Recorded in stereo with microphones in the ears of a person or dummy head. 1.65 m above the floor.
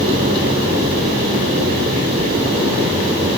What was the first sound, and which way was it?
Only background noise.